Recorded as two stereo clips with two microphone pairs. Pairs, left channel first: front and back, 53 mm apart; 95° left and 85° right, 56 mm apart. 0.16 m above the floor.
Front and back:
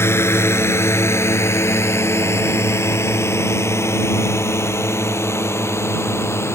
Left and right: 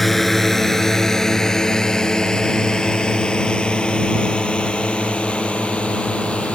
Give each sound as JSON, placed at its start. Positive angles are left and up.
{"t": 0.0, "sound": "a drone", "azimuth_deg": 5}